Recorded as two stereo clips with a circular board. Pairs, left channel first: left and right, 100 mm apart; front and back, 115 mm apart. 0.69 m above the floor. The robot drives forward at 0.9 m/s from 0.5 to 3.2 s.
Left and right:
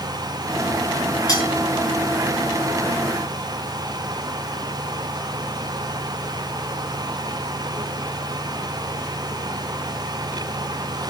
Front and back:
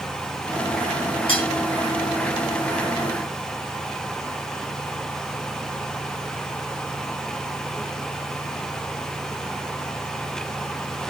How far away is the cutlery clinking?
About 4 m.